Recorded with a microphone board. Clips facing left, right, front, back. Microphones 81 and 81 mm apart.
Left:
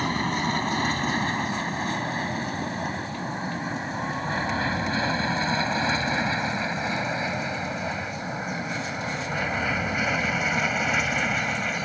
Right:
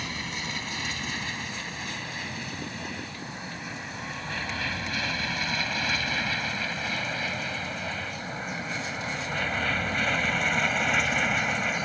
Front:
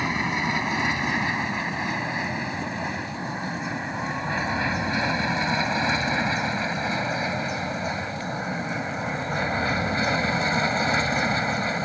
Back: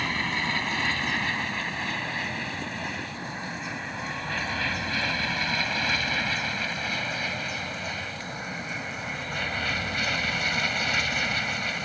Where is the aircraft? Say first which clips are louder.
Left 10 dB, front 3 dB; 70° left; by 11.9 s straight ahead.